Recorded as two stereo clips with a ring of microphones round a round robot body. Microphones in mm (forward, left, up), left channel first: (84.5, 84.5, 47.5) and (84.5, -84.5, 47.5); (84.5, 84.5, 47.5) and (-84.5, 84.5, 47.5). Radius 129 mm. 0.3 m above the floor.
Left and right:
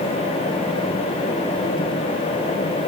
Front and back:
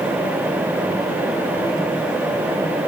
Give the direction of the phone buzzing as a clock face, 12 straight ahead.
No phone buzzing in this recording.